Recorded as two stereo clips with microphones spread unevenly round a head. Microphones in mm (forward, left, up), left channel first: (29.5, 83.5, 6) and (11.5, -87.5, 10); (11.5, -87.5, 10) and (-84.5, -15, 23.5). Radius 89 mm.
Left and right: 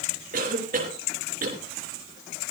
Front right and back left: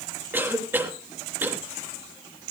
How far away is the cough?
About 3 m.